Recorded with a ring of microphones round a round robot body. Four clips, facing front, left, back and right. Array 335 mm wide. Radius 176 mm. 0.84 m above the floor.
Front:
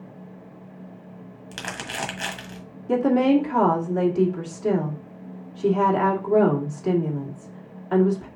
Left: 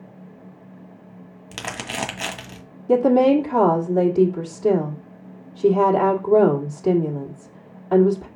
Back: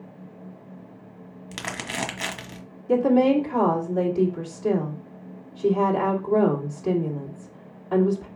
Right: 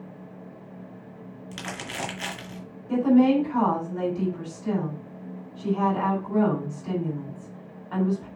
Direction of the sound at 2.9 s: 70° left.